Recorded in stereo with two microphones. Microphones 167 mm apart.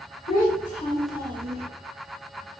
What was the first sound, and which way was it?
A child speaking, 55° left (ahead or behind).